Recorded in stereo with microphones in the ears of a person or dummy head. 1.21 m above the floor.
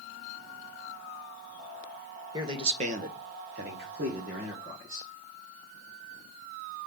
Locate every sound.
2.3 s a man speaking: 15° right (ahead or behind), 0.9 m; by 5.1 s 40° right (ahead or behind), 1.8 m